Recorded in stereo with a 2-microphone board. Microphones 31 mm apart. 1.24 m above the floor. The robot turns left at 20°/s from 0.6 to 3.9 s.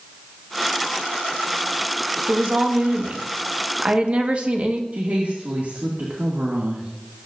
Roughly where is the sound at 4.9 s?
Right.